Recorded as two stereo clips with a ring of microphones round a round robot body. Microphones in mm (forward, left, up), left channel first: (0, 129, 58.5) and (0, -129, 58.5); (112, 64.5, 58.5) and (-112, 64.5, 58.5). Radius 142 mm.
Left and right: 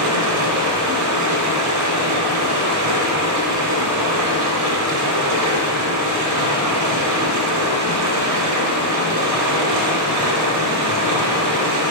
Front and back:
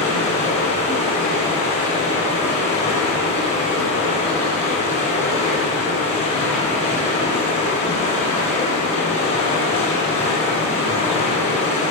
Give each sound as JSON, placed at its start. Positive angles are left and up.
{"t": 0.0, "sound": "running water", "azimuth_deg": -80, "distance_m": 3.0}